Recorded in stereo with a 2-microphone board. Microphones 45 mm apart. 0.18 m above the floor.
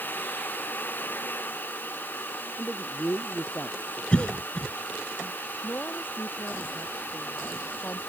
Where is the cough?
25° left (ahead or behind).